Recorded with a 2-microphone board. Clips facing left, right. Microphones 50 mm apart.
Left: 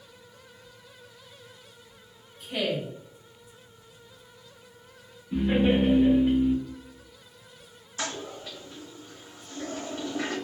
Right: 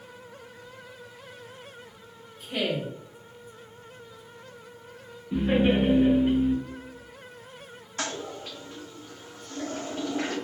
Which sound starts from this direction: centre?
A woman speaking, at 2.4 s.